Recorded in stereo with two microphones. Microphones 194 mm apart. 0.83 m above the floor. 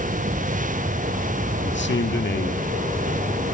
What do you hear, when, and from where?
1.6 s a man speaking: 75° left (ahead or behind), 1.8 m; by 2.7 s 55° left (ahead or behind), 1.9 m